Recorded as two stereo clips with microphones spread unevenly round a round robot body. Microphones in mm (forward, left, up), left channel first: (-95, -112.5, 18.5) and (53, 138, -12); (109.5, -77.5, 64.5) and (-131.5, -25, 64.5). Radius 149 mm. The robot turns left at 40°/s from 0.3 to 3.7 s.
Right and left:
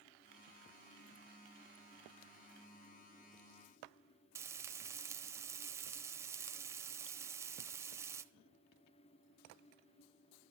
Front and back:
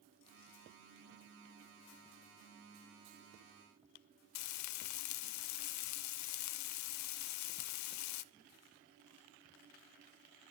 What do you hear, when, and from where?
4.3 s frying: 25° right, 0.7 m